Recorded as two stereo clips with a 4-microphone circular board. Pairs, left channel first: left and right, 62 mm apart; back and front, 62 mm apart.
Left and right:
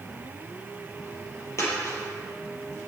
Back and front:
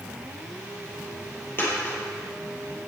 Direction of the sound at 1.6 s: 125° left.